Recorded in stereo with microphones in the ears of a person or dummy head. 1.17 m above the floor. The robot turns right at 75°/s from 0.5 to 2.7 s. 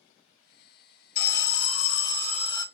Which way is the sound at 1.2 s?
55° left.